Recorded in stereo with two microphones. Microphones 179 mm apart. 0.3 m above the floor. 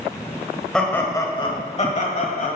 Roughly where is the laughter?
Centre.